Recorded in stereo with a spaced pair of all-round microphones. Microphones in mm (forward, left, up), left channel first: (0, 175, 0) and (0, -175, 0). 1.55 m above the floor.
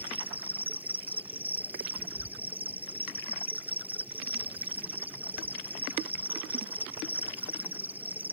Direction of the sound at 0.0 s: 5° right (ahead or behind).